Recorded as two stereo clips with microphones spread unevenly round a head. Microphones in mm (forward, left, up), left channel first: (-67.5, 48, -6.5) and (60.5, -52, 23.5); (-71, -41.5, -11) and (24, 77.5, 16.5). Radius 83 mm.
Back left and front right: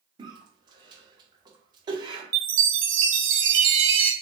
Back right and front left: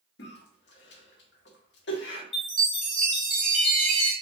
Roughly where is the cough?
Right.